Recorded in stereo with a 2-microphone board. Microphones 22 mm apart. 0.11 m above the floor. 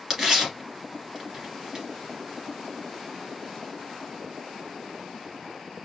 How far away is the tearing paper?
About 1.6 m.